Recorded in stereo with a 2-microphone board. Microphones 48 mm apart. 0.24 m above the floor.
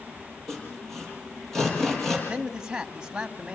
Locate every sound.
0.5 s sawing: 5° left (ahead or behind), 7.5 m
2.3 s a man speaking: 15° right (ahead or behind), 1.7 m